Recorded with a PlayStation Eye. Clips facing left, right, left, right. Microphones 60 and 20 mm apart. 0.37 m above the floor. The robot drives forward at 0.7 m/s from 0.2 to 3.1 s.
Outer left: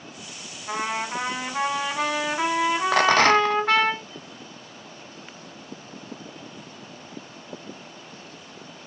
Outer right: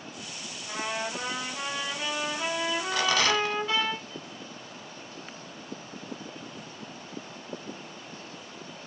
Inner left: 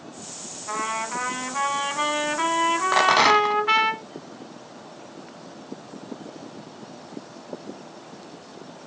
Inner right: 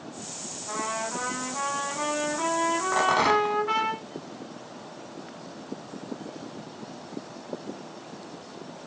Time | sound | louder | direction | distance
0.7 | a trumpet | outer left 5 dB, inner left 3 dB | 55° left (ahead or behind) | 2 m
2.9 | a rattle | outer left 9 dB, inner left 5 dB | 60° left (ahead or behind) | 0.5 m